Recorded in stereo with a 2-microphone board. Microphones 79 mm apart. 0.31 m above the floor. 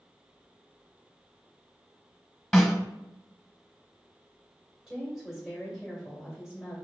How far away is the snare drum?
About 1.2 m.